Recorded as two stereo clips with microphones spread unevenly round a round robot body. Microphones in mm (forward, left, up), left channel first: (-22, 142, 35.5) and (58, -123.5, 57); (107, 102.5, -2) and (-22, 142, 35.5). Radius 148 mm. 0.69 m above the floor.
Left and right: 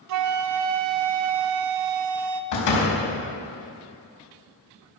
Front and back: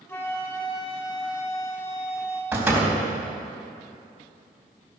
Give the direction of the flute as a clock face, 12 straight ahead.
3 o'clock.